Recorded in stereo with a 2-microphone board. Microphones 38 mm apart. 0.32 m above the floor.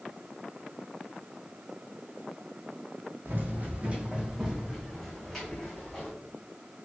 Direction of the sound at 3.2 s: 60° right (ahead or behind).